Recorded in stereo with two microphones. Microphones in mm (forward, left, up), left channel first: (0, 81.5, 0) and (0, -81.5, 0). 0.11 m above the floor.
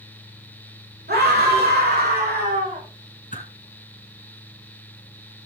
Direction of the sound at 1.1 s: 80° right.